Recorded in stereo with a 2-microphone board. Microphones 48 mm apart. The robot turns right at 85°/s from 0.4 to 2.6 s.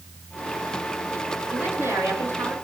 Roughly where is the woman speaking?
Behind right.